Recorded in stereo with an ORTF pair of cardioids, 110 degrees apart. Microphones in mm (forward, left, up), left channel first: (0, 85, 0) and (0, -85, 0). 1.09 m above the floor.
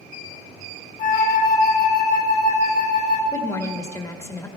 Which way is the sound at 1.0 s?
70° left.